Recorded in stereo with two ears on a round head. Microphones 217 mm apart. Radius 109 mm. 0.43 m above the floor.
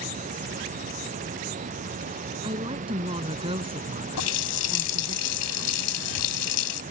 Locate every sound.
2.4 s a woman speaking: 20° right (ahead or behind); by 5.2 s 25° right (ahead or behind)
4.2 s a running tap: 70° left (ahead or behind)